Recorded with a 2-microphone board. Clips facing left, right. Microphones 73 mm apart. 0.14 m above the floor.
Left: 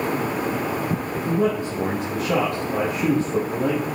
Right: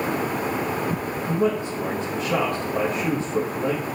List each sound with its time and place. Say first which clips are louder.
1.2 s a man speaking: left 1 dB; 60° left (ahead or behind), 3.5 m